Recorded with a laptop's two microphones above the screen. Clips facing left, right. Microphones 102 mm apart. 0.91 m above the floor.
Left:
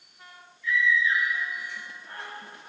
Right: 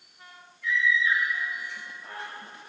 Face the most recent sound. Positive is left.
turn(degrees=-75)  # may be behind; listen again after turning